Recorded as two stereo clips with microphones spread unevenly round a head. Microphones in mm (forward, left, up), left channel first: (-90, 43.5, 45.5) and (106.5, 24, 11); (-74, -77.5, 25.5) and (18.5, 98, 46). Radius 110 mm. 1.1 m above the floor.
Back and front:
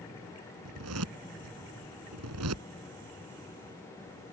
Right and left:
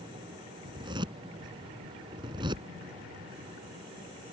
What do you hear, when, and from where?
0.7 s a zipper: 10° right